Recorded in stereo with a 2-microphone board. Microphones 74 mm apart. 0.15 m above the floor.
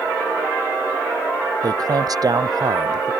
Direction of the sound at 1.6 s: 60° right (ahead or behind).